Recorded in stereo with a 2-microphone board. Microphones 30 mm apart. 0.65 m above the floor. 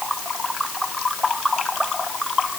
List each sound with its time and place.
Only background noise.